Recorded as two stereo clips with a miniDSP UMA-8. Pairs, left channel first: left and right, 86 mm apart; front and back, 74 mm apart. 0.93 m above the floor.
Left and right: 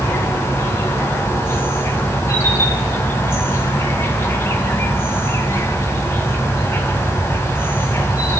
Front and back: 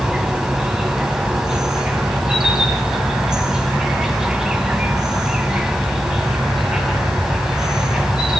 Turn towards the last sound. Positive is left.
turn(degrees=105)